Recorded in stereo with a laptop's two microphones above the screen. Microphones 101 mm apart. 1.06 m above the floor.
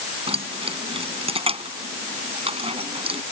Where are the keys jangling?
70° right (ahead or behind).